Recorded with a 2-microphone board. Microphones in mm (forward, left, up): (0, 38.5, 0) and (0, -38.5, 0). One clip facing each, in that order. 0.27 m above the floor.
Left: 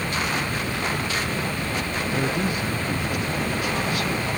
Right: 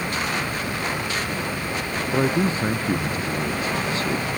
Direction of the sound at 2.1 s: 30° right (ahead or behind).